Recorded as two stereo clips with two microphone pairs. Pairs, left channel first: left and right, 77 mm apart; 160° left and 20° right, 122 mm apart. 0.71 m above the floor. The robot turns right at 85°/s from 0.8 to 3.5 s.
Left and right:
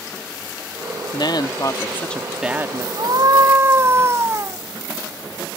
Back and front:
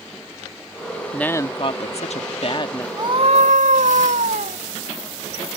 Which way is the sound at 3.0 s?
80° right.